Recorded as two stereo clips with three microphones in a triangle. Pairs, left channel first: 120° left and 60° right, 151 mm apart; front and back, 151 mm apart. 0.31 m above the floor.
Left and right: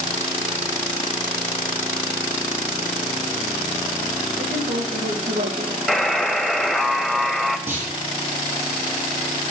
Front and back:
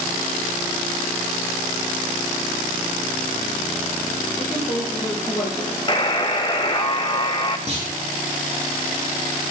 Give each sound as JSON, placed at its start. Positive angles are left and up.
{"t": 4.4, "sound": "a woman speaking", "azimuth_deg": -75, "distance_m": 4.5}
{"t": 5.9, "sound": "a buzzer", "azimuth_deg": 35, "distance_m": 1.3}
{"t": 7.7, "sound": "a clunk", "azimuth_deg": -135, "distance_m": 5.0}